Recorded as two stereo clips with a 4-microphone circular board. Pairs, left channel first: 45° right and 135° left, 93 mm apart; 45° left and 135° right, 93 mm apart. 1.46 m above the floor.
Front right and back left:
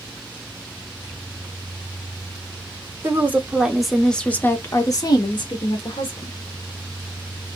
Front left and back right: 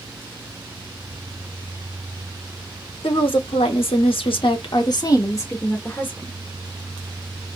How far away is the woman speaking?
About 1.0 m.